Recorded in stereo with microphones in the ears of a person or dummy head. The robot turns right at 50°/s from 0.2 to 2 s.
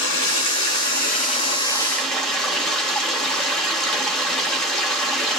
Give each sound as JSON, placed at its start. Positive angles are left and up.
{"t": 0.0, "sound": "running water", "azimuth_deg": 85, "distance_m": 2.0}